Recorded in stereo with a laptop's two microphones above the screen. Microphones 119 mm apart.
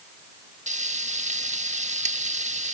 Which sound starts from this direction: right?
Frying, at 0.7 s.